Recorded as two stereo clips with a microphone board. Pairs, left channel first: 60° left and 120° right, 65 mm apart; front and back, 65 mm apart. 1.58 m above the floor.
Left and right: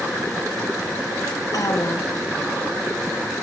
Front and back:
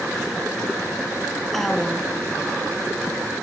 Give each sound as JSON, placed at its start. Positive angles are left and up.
{"t": 1.5, "sound": "a woman speaking", "azimuth_deg": 90, "distance_m": 1.4}